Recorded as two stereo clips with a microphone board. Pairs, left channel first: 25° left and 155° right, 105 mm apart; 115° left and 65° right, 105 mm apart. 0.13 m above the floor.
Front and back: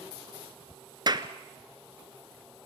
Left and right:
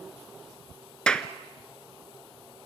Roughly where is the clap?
Behind.